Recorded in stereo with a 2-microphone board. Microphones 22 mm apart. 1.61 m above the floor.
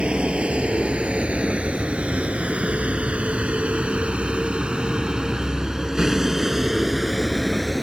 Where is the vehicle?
60° right (ahead or behind); by 7.8 s 10° right (ahead or behind).